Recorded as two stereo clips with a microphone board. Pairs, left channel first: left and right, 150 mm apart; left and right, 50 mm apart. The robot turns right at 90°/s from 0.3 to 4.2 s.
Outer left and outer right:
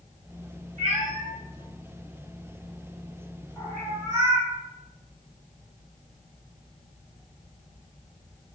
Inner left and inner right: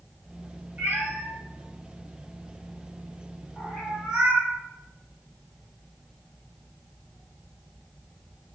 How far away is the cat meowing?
About 1.2 m.